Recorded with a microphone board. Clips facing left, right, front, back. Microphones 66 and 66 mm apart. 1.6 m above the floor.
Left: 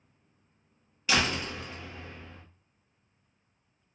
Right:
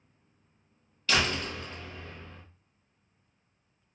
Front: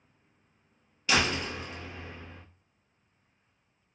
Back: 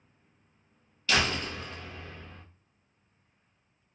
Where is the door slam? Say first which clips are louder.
Even, front 1 dB; 45° left, 0.7 m.